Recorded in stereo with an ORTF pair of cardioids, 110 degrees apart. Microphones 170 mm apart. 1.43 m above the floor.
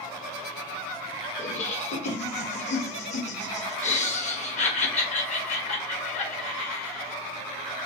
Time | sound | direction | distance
1.4 | laughter | 45° left | 1.1 m